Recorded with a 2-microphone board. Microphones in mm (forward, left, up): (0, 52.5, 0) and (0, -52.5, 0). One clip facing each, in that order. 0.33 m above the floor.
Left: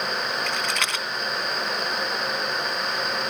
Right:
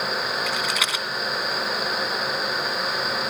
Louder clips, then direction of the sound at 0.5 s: Right 1 dB; 5° right (ahead or behind).